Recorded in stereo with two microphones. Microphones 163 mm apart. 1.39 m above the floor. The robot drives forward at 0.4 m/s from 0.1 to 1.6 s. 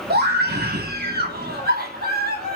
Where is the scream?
85° right, 3 m; by 2.6 s 70° right (ahead or behind), 3.5 m.